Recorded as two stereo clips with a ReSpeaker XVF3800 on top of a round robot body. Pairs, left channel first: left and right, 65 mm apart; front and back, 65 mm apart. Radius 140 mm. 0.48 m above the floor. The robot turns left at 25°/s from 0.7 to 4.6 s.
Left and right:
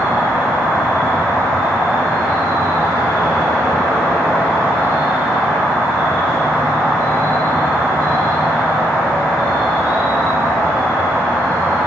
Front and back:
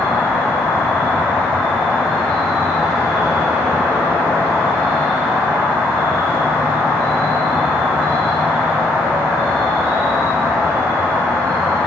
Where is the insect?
35° right, 1.4 m; by 11.9 s 135° right, 1.4 m.